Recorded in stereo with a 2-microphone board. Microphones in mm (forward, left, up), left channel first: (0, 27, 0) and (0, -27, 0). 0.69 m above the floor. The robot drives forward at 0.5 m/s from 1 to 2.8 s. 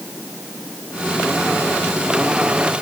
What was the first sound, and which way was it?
Only background noise.